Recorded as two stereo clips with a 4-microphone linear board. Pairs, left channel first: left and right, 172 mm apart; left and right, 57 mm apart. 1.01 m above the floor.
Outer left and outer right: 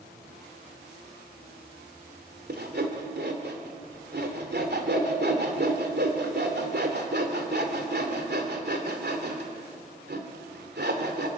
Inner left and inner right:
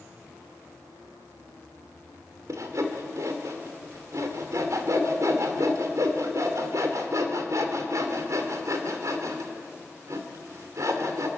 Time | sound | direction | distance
2.5 | sawing | 75° right (ahead or behind) | 2.5 m